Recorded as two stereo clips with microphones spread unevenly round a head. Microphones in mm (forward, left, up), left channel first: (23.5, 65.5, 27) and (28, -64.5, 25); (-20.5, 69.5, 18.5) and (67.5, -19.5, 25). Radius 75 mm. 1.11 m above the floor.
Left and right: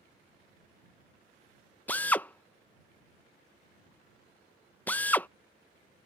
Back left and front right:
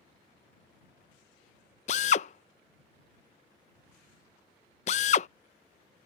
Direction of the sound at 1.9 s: 170° left.